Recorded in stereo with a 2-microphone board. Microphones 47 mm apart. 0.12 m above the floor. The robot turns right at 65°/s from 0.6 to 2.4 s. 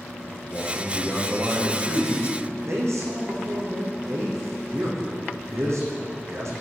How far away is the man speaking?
About 6.5 m.